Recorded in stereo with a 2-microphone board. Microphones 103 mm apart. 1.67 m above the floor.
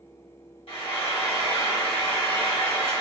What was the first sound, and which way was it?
Frying, 65° left (ahead or behind).